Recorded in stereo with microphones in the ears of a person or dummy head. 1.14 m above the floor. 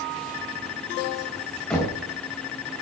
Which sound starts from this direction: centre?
Knocking, at 1.7 s.